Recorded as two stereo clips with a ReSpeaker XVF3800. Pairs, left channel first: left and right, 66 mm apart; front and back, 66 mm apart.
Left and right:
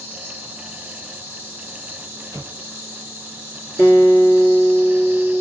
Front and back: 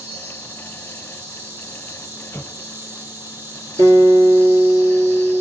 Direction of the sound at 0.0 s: 145° right.